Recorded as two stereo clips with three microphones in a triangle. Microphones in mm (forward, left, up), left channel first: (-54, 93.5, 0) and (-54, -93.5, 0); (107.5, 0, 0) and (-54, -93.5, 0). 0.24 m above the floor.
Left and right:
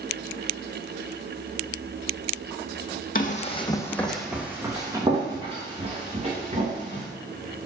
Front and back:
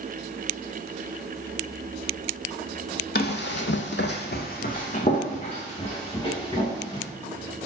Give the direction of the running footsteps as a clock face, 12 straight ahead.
10 o'clock.